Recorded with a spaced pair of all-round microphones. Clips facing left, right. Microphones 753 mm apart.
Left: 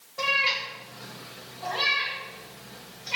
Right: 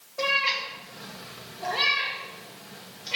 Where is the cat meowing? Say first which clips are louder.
Right 3 dB; 30° left (ahead or behind), 1.5 m; by 3.2 s 60° right (ahead or behind), 3 m.